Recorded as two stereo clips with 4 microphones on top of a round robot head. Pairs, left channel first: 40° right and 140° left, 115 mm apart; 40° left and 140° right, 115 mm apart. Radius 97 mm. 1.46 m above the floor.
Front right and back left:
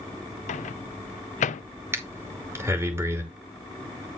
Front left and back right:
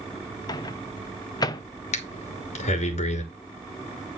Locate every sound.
0.5 s a microwave: 20° right, 0.5 m
1.9 s breathing: 70° left, 2.5 m